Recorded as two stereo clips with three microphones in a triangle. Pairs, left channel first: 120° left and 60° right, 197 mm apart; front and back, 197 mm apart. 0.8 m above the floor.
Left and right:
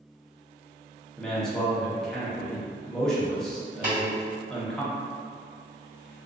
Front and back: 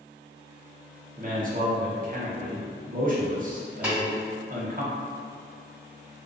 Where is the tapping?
95° right, 1.3 m.